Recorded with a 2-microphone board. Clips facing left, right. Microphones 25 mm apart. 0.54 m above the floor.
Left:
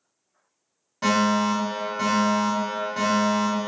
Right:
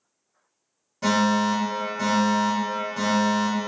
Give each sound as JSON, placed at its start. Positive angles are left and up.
{"t": 1.0, "sound": "a fire alarm", "side_deg": 35, "distance_m": 1.8}